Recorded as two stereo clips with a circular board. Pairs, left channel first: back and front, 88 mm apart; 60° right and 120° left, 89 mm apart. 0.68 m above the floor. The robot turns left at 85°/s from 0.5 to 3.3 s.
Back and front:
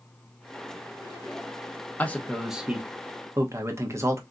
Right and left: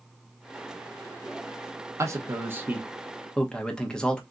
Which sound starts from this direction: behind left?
A man speaking, at 2.0 s.